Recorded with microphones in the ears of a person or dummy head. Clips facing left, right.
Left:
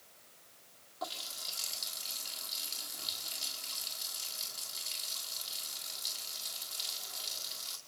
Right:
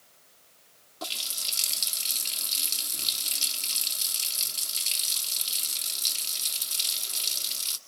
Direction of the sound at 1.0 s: 40° right (ahead or behind).